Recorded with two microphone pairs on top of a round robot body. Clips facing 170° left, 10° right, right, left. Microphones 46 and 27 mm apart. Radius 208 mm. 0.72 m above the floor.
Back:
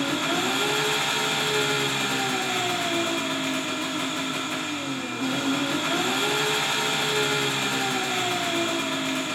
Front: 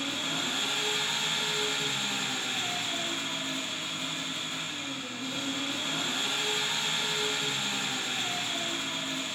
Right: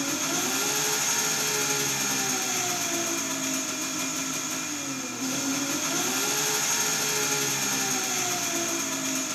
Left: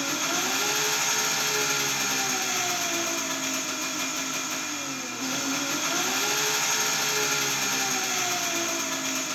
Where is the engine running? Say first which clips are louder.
Back 8 dB, left 1 dB; 170° left, 0.9 m.